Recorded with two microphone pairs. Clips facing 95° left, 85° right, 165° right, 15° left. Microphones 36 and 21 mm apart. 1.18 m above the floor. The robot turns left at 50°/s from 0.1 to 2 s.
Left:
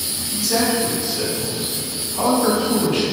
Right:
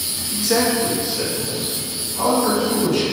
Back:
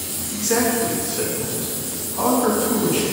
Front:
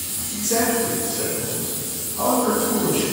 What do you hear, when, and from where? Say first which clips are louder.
0.3 s a man speaking: right 1 dB, back 1 dB; 125° right, 0.7 m; by 3.0 s 150° left, 0.7 m